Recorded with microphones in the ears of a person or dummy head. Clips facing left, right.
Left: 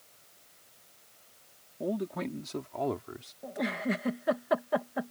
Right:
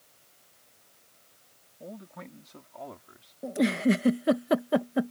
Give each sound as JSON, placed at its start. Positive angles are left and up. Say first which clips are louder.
{"t": 1.8, "sound": "a man speaking", "louder": "left 11 dB", "side_deg": 80}
{"t": 3.4, "sound": "a giggle", "louder": "right 8 dB", "side_deg": -35}